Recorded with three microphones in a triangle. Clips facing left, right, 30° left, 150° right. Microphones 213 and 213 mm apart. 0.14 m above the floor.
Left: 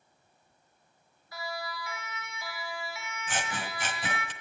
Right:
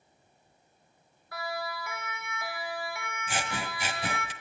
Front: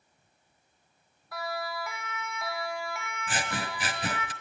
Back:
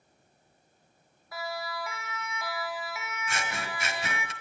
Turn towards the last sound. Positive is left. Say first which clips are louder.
# right 1 dB, front 3 dB
turn(degrees=-15)